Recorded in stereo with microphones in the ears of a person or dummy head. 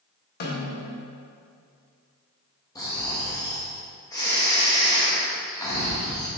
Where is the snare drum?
45° left (ahead or behind), 1.4 m.